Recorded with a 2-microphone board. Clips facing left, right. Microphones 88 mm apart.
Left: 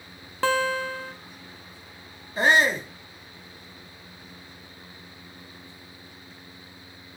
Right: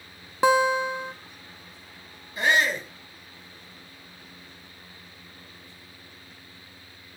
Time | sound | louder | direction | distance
0.4 | a guitar | right 4 dB | 20° right (ahead or behind) | 0.9 m
2.4 | a shout | left 3 dB | 35° left (ahead or behind) | 1.6 m